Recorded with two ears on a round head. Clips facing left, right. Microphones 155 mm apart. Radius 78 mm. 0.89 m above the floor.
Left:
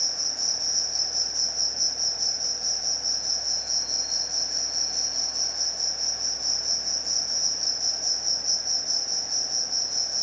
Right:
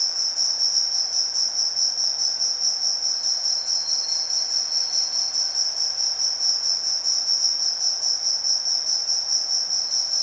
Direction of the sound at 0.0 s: 60° right (ahead or behind).